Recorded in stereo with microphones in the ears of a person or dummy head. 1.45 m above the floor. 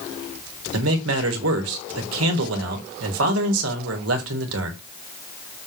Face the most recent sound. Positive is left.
turn(degrees=-75)  # may be behind; listen again after turning